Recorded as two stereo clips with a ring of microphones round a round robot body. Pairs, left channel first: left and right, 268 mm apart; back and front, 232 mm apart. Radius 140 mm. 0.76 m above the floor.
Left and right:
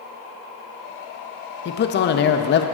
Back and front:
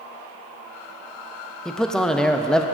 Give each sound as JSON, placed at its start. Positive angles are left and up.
{"t": 1.6, "sound": "a man speaking", "azimuth_deg": 95, "distance_m": 0.6}